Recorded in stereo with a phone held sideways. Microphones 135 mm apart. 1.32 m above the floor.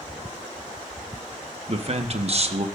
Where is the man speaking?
50° right (ahead or behind), 1.0 m.